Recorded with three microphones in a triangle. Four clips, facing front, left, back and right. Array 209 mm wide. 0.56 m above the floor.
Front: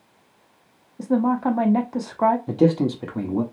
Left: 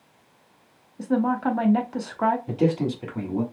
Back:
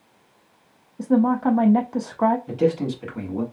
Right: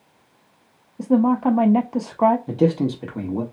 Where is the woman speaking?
80° right, 0.7 m.